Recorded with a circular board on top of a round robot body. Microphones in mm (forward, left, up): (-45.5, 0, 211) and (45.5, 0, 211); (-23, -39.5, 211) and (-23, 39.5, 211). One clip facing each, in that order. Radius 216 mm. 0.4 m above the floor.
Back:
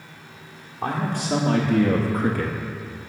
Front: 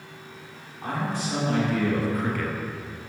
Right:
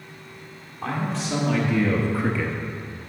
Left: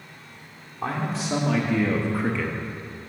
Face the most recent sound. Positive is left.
turn(degrees=-125)